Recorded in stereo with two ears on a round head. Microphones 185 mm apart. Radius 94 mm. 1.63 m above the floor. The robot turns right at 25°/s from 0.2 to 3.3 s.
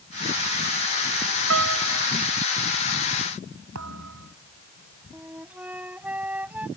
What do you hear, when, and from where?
1.5 s a piano: 75° right (ahead or behind); by 2.1 s 60° right (ahead or behind)
3.8 s a thud: 80° right
5.1 s a flute: 5° right (ahead or behind)